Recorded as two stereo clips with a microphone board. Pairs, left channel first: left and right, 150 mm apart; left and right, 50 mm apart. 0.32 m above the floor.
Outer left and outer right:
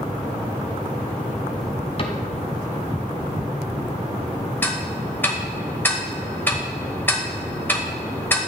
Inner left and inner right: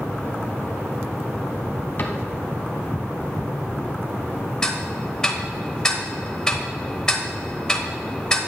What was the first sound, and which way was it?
A cupboard door, 40° left (ahead or behind).